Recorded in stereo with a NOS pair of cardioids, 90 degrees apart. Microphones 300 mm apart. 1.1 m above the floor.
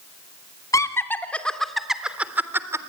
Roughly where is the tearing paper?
I don't hear tearing paper.